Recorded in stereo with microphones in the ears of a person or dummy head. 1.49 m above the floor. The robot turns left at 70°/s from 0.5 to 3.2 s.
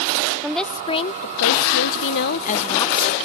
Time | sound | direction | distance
0.4 | a woman speaking | 175° right | ?